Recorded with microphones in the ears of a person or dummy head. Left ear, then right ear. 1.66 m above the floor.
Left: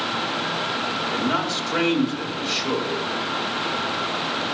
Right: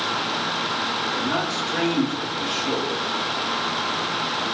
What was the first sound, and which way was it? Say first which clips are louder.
A man speaking: even; 55° left (ahead or behind).